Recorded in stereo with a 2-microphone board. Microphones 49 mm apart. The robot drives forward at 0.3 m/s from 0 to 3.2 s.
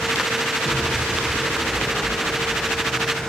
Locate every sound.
0.7 s an explosion: 20° left (ahead or behind), 3 m; by 3.3 s 30° left (ahead or behind), 2 m